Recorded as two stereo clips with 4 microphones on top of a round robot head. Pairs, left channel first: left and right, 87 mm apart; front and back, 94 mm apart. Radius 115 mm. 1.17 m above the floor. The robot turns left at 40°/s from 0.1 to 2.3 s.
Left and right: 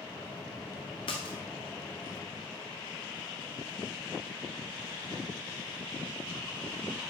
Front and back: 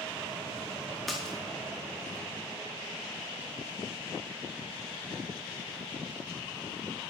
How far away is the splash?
About 0.7 m.